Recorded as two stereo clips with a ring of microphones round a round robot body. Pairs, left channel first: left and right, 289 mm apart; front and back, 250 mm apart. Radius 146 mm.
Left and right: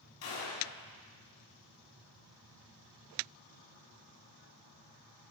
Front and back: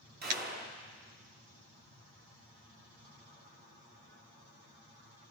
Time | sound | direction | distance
0.2 | a gunshot | 130° left | 2.5 m